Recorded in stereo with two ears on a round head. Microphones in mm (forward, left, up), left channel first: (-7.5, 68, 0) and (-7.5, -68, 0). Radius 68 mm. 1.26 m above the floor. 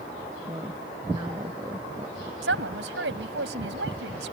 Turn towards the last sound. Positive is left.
turn(degrees=-85)